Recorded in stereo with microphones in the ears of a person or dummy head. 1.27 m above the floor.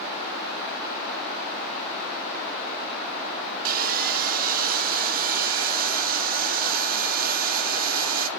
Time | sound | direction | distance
3.6 | sawing | 45° right (ahead or behind) | 0.5 m